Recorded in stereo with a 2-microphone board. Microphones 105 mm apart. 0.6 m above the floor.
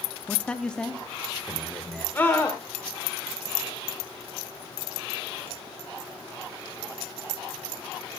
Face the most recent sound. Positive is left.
turn(degrees=20)  # may be behind; listen again after turning